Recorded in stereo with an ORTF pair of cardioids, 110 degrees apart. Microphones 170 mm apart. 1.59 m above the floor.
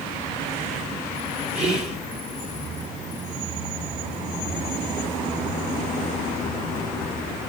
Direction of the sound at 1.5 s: 15° right.